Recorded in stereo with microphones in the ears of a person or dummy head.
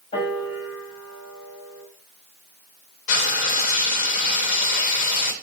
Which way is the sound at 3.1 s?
50° left (ahead or behind).